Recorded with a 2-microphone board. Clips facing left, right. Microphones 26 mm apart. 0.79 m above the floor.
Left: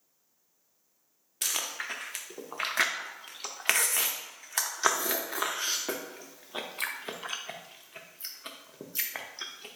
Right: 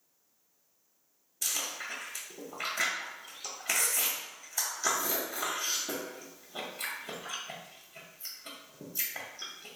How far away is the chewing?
About 0.5 m.